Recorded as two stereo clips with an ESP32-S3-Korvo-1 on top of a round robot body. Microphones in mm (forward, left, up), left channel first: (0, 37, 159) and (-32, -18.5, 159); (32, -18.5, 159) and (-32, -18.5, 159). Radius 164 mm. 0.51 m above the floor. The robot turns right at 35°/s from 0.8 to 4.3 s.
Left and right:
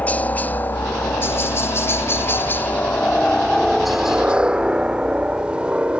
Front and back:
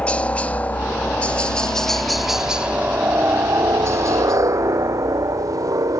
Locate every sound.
0.0 s a helicopter: 40° left; by 6.0 s 170° left